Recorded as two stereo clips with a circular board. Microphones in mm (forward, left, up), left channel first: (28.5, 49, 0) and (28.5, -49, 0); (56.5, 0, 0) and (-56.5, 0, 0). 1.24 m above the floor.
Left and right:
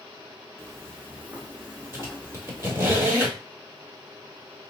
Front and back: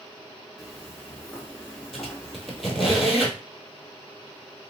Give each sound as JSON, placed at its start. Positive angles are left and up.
{"t": 0.6, "sound": "footsteps", "azimuth_deg": -90, "distance_m": 1.3}
{"t": 1.9, "sound": "a squeak", "azimuth_deg": -90, "distance_m": 1.3}